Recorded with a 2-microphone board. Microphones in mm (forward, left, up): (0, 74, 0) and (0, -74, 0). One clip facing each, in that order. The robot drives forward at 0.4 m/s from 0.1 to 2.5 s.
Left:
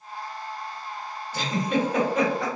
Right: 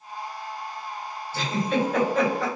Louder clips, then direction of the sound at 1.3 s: Even; 15° left (ahead or behind).